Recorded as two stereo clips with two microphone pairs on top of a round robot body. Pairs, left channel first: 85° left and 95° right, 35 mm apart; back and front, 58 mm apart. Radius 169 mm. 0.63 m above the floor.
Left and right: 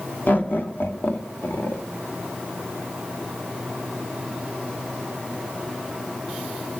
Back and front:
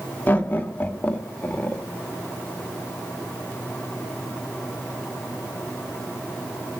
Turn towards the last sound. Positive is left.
turn(degrees=105)